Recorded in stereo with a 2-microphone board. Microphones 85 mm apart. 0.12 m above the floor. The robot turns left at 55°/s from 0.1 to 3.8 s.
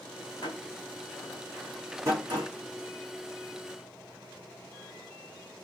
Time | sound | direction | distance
0.4 | a door slam | 55° left (ahead or behind) | 6.5 m